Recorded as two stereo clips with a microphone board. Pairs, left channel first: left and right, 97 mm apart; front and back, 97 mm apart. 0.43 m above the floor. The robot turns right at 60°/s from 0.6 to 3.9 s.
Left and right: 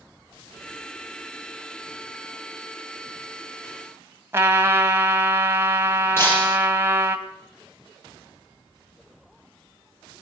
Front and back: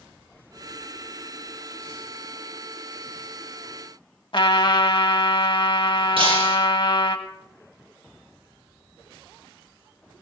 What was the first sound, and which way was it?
A trumpet, 25° right.